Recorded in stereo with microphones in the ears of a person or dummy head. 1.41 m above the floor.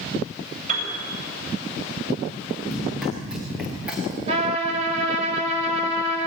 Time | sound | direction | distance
0.7 | a piano | 45° right (ahead or behind) | 7.5 m
2.7 | running footsteps | centre (ahead or behind) | 8 m
4.3 | a trumpet | 35° right (ahead or behind) | 5 m